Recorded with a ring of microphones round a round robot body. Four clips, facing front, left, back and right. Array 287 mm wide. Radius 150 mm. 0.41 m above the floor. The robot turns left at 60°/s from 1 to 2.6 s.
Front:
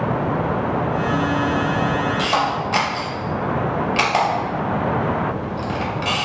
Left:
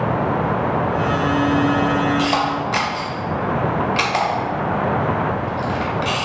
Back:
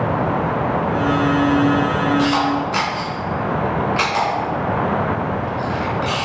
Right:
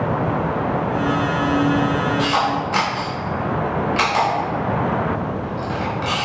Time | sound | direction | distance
2.2 | a camera shutter | 60° left | 1.0 m